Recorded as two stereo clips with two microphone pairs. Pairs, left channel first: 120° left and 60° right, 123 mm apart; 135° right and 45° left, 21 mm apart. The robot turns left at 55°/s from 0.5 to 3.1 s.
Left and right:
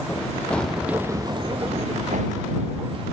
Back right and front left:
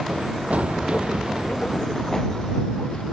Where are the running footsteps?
45° left; by 3.0 s 105° right.